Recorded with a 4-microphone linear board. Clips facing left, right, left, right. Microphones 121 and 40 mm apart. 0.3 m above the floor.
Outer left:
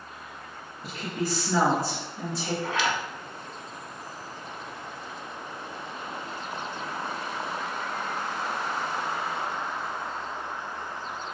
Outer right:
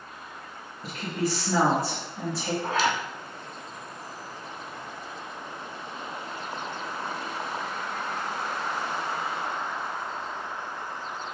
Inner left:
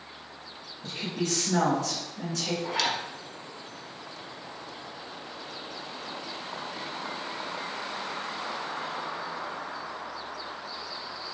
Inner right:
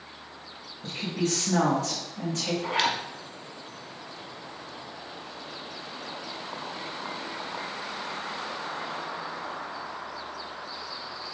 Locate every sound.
0.8 s a woman speaking: 40° right (ahead or behind), 1.8 m
2.6 s a zipper: 40° right (ahead or behind), 0.7 m